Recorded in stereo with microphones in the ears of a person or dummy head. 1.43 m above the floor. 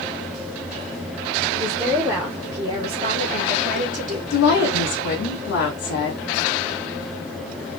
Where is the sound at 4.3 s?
60° left (ahead or behind), 1.7 m.